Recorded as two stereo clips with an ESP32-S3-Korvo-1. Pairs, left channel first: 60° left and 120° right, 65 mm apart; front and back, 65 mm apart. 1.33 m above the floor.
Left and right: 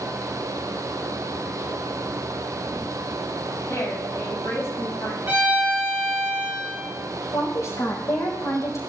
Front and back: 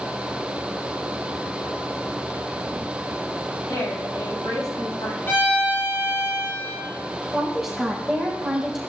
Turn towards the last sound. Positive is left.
turn(degrees=85)